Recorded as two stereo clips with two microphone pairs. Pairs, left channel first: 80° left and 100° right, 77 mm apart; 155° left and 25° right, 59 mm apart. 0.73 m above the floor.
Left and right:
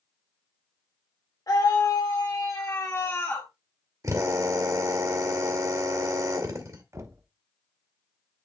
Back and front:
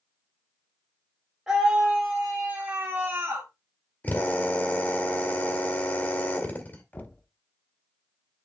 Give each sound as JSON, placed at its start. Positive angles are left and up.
{"t": 1.5, "sound": "a scream", "azimuth_deg": 55, "distance_m": 2.5}
{"t": 4.0, "sound": "a drill", "azimuth_deg": -140, "distance_m": 2.0}
{"t": 6.9, "sound": "knocking", "azimuth_deg": -145, "distance_m": 1.0}